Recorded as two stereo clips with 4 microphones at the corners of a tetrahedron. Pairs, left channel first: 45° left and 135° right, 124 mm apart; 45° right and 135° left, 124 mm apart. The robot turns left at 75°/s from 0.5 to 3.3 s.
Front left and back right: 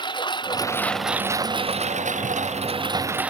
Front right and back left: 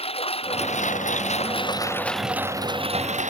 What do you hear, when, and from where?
0.0 s a lawn mower: 5° right; by 3.3 s 145° left